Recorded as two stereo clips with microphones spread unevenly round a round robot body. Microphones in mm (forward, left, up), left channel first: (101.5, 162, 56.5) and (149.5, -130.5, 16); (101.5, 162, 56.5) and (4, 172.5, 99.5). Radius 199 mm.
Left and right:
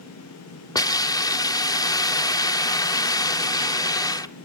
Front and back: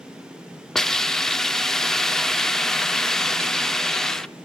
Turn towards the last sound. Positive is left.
turn(degrees=15)